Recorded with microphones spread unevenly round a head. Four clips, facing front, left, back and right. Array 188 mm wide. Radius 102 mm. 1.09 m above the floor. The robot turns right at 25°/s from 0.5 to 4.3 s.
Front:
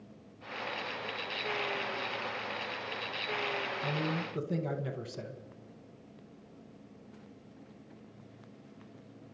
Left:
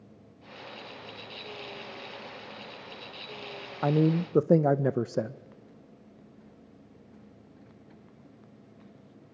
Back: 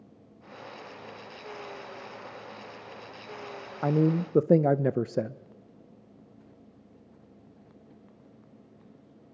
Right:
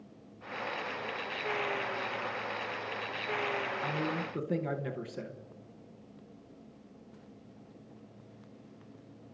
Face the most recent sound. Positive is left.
turn(degrees=150)